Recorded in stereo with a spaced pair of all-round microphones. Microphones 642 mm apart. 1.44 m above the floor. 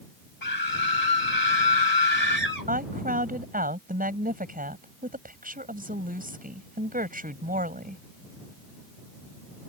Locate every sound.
0.4 s a scream: 75° left (ahead or behind)
2.7 s a woman speaking: 15° right (ahead or behind)